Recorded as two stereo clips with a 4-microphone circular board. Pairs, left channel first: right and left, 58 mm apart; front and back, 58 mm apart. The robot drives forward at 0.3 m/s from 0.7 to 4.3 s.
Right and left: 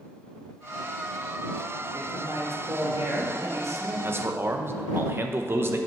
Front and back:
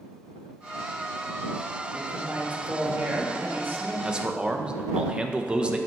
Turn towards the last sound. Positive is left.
turn(degrees=110)